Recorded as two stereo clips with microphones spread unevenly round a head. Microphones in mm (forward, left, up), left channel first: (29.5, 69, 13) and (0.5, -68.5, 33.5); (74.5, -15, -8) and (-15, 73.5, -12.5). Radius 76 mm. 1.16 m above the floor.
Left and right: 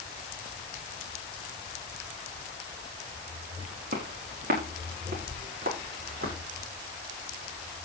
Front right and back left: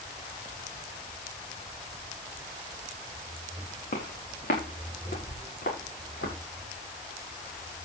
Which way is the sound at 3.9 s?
70° right.